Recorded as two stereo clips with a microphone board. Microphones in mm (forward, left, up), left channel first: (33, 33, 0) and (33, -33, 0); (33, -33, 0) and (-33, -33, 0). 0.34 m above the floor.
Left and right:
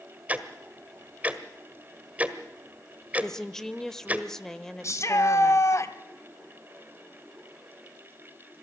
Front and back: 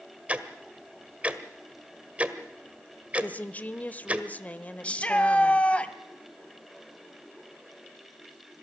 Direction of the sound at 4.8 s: 65° left.